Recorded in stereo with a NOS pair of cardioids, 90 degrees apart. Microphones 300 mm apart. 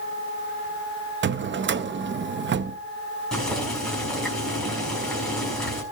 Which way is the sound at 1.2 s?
40° right.